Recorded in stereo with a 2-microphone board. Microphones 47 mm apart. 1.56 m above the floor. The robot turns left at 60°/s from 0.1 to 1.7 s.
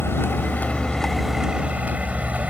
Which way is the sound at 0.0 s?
65° left.